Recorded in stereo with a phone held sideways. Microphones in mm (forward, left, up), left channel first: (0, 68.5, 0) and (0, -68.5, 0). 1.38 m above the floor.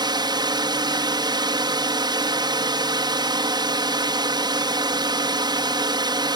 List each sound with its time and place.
0.0 s a drone: 30° right (ahead or behind)